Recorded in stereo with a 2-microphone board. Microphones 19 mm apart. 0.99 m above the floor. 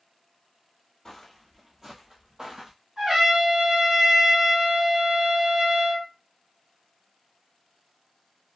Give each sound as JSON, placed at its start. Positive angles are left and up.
{"t": 1.1, "sound": "footsteps", "side_deg": 20, "distance_m": 1.0}
{"t": 3.0, "sound": "a trumpet", "side_deg": -35, "distance_m": 1.7}